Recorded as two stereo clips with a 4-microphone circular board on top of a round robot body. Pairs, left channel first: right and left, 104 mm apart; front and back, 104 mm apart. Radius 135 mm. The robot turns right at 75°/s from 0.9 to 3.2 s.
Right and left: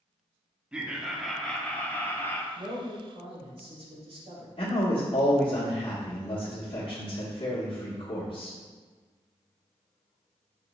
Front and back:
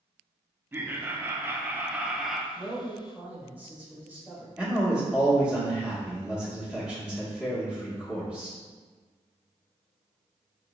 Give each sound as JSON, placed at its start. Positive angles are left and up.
{"t": 0.7, "sound": "laughter", "azimuth_deg": 155, "distance_m": 0.8}
{"t": 2.5, "sound": "a man speaking", "azimuth_deg": 60, "distance_m": 1.9}
{"t": 4.6, "sound": "a man speaking", "azimuth_deg": -100, "distance_m": 1.2}